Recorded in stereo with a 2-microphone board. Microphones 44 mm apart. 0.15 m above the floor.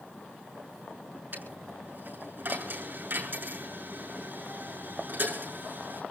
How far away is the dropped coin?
About 7.5 m.